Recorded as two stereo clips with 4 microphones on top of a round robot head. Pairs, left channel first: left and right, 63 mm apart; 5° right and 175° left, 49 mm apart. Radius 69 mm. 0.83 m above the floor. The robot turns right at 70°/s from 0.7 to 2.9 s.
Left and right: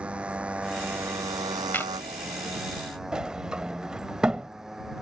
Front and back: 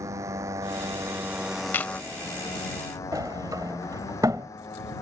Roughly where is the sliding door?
Behind.